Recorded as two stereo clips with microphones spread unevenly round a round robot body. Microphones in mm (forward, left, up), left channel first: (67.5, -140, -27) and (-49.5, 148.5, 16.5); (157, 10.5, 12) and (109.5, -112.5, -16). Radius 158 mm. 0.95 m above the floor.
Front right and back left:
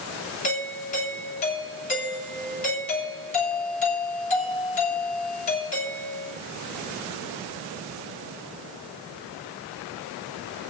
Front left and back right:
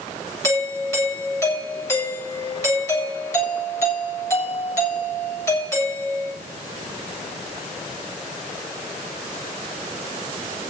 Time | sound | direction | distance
0.4 | a doorbell | straight ahead | 7.5 m